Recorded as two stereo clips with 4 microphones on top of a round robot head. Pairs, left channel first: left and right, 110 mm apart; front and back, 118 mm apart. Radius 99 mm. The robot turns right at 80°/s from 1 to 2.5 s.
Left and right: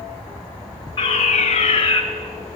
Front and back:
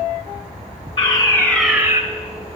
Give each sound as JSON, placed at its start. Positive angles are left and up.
{"t": 1.0, "sound": "a fire alarm", "azimuth_deg": 40, "distance_m": 5.5}